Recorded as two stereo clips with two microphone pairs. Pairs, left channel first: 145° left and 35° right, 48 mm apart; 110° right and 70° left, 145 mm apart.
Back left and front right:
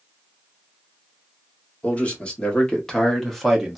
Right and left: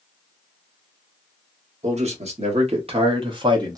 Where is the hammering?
I don't hear hammering.